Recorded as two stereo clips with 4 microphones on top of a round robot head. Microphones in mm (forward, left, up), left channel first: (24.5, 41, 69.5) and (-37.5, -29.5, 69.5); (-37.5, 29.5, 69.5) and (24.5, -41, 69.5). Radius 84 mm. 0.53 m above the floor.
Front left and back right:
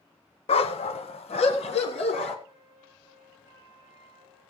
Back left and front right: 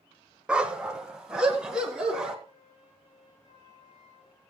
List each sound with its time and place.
0.5 s a dog barking: 30° left, 1.0 m; by 2.4 s 35° left, 2.5 m
2.5 s a flute: 175° left, 9.5 m